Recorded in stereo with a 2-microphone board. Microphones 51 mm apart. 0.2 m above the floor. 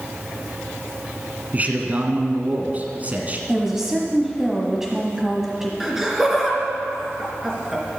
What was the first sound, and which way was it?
A man speaking, 35° right (ahead or behind).